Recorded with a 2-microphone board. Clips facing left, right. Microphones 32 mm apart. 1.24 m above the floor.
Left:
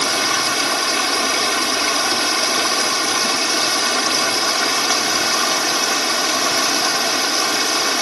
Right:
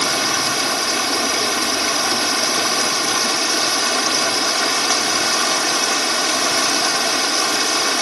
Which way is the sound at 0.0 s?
10° left (ahead or behind).